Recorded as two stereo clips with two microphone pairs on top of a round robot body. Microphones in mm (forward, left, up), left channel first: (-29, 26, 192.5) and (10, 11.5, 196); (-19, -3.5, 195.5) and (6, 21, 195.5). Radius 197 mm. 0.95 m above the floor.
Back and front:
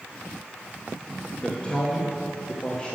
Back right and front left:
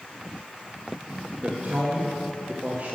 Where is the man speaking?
90° left, 1.3 m.